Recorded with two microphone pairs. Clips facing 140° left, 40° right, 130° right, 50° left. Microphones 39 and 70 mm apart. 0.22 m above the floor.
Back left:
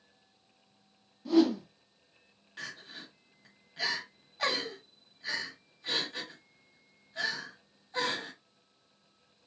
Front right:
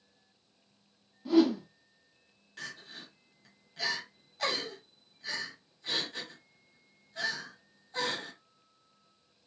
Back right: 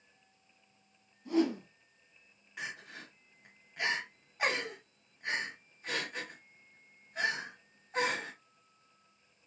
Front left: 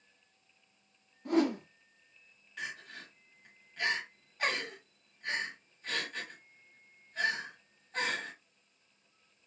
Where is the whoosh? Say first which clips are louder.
Even, front left 1 dB; 40° left, 0.6 m.